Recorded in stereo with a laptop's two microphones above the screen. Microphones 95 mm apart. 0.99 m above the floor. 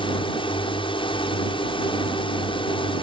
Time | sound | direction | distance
0.0 | a drone | 65° left (ahead or behind) | ?